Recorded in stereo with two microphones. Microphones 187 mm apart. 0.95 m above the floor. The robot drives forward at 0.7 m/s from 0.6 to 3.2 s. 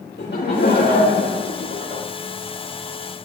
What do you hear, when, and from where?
0.2 s laughter: 65° left (ahead or behind), 2.0 m; by 2.0 s 50° left (ahead or behind), 2.5 m